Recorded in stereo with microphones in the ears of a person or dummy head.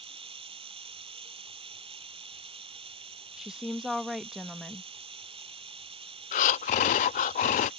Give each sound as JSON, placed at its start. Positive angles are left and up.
{"t": 0.0, "sound": "running water", "side_deg": -25}
{"t": 3.4, "sound": "a woman speaking", "side_deg": 0}
{"t": 6.3, "sound": "breathing", "side_deg": 40}